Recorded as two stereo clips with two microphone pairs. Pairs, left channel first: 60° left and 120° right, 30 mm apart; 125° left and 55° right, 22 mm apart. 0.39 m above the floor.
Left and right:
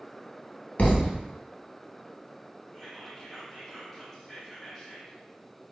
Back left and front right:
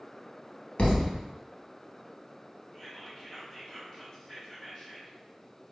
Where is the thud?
95° left, 0.5 m.